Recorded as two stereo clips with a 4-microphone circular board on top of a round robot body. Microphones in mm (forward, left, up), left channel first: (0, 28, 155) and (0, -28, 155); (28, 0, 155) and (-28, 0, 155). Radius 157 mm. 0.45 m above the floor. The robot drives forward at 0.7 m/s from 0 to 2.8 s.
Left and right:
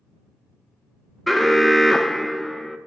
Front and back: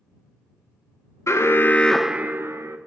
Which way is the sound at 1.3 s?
Straight ahead.